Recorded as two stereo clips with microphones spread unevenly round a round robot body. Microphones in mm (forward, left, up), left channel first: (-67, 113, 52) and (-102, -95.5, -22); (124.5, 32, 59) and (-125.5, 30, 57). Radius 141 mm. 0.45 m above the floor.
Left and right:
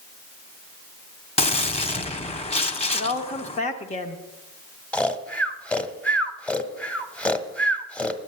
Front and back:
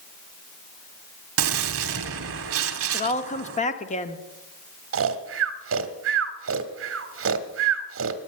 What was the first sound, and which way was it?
A gunshot, 145° left.